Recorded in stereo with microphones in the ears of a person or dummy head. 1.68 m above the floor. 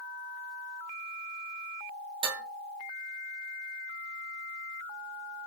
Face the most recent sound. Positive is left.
turn(degrees=-30)  # may be behind; listen again after turning